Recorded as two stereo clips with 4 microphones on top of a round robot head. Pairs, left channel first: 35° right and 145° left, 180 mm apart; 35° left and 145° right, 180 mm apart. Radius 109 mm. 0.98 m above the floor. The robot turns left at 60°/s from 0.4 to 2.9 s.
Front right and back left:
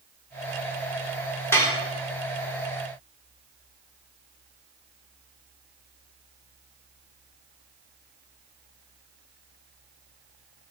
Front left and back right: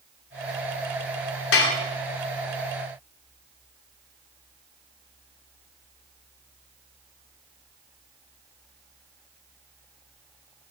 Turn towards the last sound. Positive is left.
turn(degrees=-40)